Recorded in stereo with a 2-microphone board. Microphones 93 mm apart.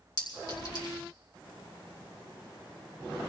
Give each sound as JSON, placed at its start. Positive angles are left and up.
{"t": 0.2, "sound": "a clink", "side_deg": 45, "distance_m": 4.5}